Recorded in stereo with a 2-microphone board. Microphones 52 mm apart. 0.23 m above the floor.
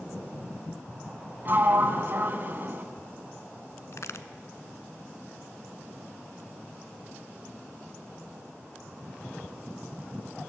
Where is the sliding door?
45° right (ahead or behind), 2.0 m.